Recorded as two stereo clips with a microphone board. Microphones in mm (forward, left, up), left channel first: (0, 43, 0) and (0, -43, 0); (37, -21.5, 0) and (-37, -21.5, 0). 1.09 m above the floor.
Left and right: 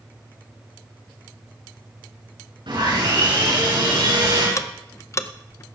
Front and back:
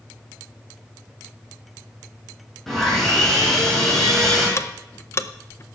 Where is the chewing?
I don't hear chewing.